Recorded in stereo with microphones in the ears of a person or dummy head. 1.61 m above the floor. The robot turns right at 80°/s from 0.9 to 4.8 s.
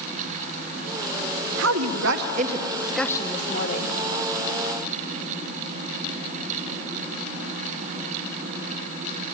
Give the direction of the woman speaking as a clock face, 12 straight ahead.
4 o'clock.